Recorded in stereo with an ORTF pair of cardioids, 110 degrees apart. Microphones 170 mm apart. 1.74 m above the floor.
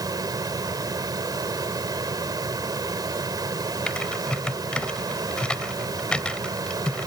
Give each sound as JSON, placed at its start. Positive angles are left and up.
{"t": 0.0, "sound": "a fan", "azimuth_deg": -20}
{"t": 3.9, "sound": "typing on a keyboard", "azimuth_deg": 5}